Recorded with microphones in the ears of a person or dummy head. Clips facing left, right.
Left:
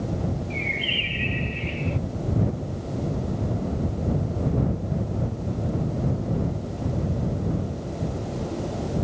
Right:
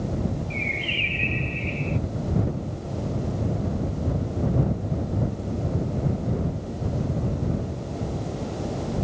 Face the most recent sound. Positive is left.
turn(degrees=10)  # may be behind; listen again after turning